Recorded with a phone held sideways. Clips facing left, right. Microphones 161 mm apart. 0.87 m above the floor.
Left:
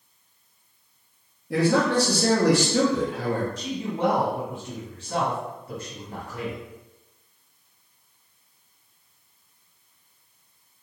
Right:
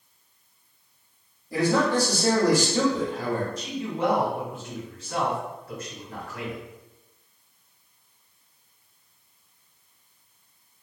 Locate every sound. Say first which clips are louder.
1.5 s a man speaking: left 2 dB; 70° left (ahead or behind), 1.1 m
3.6 s a man speaking: left 1 dB; 30° left (ahead or behind), 1.6 m